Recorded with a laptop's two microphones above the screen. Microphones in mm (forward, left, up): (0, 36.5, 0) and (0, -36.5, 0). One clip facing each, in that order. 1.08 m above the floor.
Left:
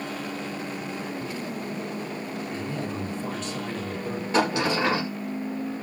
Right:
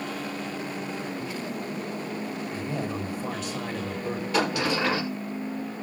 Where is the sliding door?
25° left (ahead or behind), 5.5 m.